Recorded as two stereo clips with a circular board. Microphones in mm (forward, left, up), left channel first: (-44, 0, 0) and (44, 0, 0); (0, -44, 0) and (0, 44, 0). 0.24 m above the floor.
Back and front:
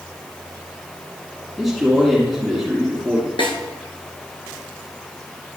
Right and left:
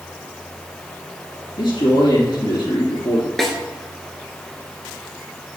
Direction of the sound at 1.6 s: 90° right.